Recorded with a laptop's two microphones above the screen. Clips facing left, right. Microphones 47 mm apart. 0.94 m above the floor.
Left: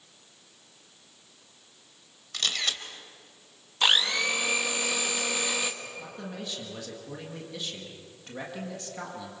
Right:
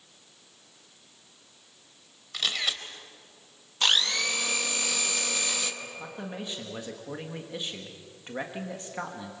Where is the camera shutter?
10° right (ahead or behind), 2 m.